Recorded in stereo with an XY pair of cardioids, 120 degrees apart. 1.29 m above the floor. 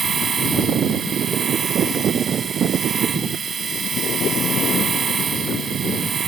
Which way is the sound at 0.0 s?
40° right.